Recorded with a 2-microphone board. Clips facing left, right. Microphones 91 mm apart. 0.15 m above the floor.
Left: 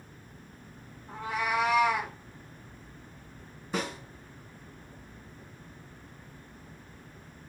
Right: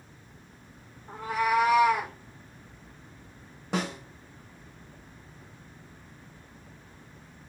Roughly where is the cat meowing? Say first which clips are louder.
Right 5 dB; right.